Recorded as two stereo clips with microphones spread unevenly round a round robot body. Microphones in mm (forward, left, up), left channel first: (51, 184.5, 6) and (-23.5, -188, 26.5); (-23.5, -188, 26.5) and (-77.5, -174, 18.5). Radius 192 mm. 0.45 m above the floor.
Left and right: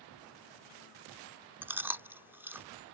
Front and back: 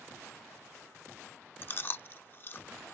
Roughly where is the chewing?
Ahead.